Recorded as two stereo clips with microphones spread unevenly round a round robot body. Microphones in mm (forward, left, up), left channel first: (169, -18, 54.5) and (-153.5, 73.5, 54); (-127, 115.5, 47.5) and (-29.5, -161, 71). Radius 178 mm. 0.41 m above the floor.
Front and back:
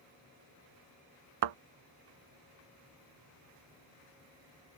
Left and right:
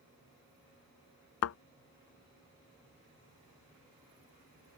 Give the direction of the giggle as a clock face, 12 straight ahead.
I don't hear a giggle.